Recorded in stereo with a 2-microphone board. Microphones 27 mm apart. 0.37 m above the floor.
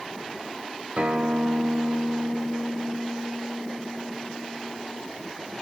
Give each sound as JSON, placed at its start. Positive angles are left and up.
{"t": 1.0, "sound": "a guitar", "side_deg": -50, "distance_m": 0.9}